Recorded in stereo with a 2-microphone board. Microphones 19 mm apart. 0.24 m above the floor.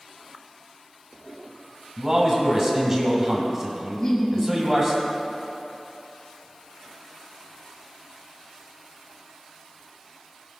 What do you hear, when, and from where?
2.0 s a man speaking: 15° right (ahead or behind), 1.6 m
3.9 s laughter: 35° left (ahead or behind), 1.5 m